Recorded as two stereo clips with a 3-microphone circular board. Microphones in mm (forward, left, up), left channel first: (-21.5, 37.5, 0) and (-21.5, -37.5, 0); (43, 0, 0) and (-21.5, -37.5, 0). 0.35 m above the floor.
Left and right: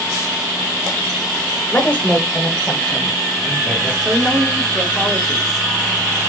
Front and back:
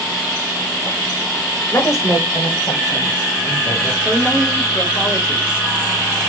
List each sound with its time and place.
1.7 s a woman speaking: 40° left, 1.0 m; by 3.9 s 5° left, 2.5 m
4.0 s a woman speaking: 5° left, 1.3 m